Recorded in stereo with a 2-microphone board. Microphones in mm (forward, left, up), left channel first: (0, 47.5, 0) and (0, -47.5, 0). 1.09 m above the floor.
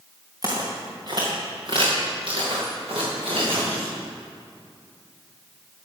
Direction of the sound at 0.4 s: 35° right (ahead or behind).